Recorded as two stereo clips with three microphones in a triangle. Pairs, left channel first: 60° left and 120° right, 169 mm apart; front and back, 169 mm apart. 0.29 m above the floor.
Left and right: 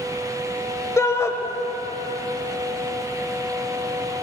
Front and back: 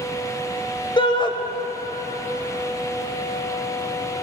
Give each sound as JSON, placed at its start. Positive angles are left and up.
{"t": 1.0, "sound": "a shout", "azimuth_deg": 5, "distance_m": 0.9}